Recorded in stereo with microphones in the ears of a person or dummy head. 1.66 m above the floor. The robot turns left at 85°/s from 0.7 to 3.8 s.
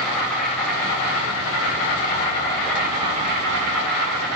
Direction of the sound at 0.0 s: 170° left.